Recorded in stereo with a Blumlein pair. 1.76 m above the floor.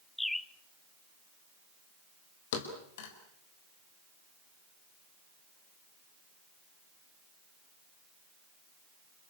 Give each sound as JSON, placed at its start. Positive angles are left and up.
{"t": 0.2, "sound": "a bird", "azimuth_deg": 5, "distance_m": 0.6}
{"t": 2.5, "sound": "a thud", "azimuth_deg": 55, "distance_m": 4.0}